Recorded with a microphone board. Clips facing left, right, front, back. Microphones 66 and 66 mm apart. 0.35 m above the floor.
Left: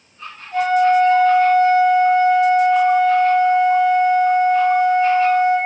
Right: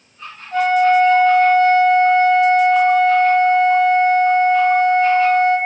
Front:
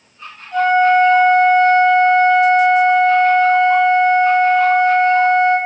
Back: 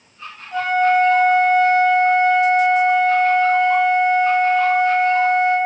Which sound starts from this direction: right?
A flute, at 0.5 s.